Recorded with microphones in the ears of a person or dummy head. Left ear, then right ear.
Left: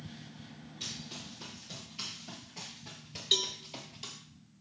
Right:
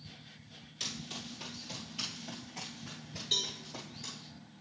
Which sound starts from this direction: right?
Running footsteps, at 0.8 s.